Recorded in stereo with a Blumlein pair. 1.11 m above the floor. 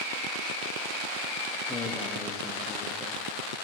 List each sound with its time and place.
1.7 s a man speaking: 10° left, 1.7 m